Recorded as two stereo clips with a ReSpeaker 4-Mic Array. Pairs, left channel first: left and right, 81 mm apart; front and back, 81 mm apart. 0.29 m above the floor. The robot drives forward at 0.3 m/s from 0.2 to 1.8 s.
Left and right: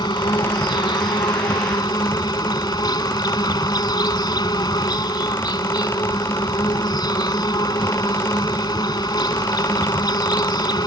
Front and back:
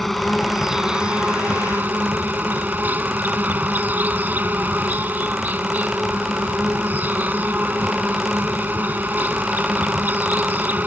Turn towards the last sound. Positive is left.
turn(degrees=115)